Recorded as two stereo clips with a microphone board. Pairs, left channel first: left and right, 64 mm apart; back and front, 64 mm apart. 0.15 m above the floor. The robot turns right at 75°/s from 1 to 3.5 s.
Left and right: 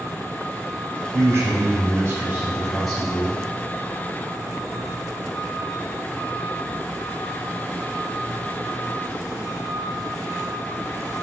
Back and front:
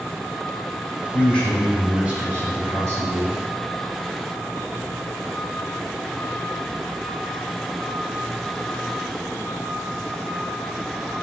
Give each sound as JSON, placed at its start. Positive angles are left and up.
{"t": 1.1, "sound": "a man speaking", "azimuth_deg": -130, "distance_m": 1.5}